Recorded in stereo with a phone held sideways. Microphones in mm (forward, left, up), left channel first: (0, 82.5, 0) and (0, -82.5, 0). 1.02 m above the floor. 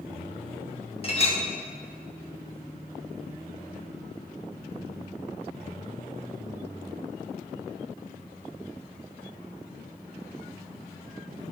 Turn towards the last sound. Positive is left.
turn(degrees=35)  # may be behind; listen again after turning